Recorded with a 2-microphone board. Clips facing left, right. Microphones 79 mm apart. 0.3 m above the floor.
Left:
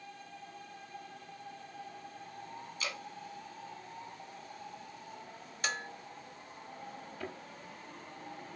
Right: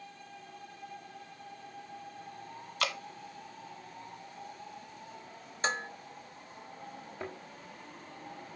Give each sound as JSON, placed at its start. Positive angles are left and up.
{"t": 2.8, "sound": "dripping", "side_deg": -70, "distance_m": 1.2}
{"t": 5.6, "sound": "dishes clattering", "side_deg": -30, "distance_m": 0.8}
{"t": 7.2, "sound": "a thud", "side_deg": -20, "distance_m": 2.5}